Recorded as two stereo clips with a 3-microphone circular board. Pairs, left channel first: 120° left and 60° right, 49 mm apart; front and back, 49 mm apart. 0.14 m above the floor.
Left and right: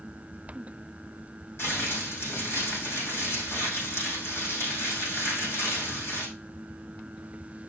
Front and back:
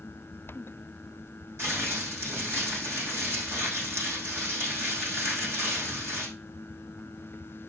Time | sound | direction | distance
1.6 | crumpling | 150° left | 5.5 m